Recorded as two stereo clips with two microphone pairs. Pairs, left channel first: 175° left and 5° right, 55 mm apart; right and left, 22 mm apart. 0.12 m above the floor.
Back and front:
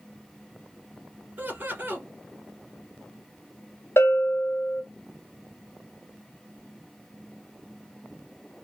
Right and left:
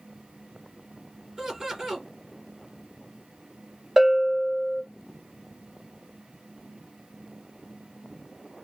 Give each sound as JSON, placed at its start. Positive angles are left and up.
{"t": 1.4, "sound": "laughter", "azimuth_deg": 30, "distance_m": 1.6}
{"t": 4.0, "sound": "a bell", "azimuth_deg": 155, "distance_m": 1.2}